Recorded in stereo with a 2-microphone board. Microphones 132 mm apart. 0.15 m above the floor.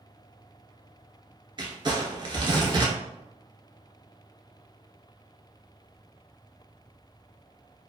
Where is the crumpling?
35° right (ahead or behind), 0.8 m.